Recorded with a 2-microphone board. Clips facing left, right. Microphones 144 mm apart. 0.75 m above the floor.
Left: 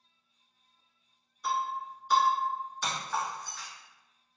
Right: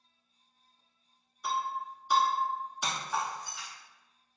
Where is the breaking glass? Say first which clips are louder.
Left 1 dB; 10° right (ahead or behind), 1.2 m.